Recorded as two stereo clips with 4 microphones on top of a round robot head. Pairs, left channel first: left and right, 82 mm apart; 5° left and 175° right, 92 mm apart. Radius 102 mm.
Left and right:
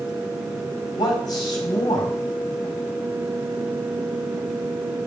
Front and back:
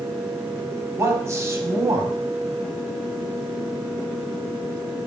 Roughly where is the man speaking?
Behind left.